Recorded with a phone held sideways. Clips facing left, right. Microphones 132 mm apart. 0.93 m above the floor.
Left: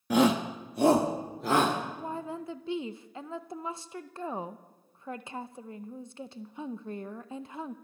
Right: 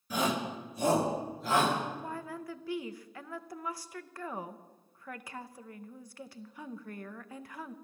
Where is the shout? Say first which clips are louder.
Left 8 dB; 65° left (ahead or behind), 1.0 m; by 1.8 s 55° left (ahead or behind), 2.5 m.